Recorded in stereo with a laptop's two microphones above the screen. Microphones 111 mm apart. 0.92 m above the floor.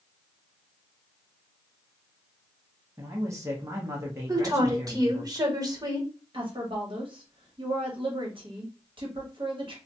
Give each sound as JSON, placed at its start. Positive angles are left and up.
{"t": 3.0, "sound": "a man speaking", "side_deg": -25, "distance_m": 0.8}
{"t": 4.3, "sound": "a woman speaking", "side_deg": -35, "distance_m": 1.3}
{"t": 6.3, "sound": "a woman speaking", "side_deg": -50, "distance_m": 1.1}